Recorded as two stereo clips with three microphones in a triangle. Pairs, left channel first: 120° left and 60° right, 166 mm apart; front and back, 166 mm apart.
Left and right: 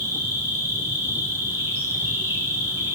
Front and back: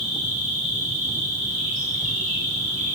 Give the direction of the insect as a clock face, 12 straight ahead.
5 o'clock.